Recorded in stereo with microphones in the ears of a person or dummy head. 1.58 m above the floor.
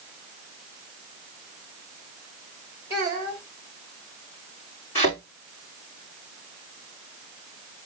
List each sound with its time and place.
2.9 s a child speaking: 15° right (ahead or behind), 2.5 m
5.0 s a thud: 30° left (ahead or behind), 4.5 m